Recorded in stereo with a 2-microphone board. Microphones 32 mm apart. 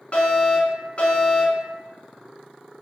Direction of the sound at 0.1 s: 35° left (ahead or behind).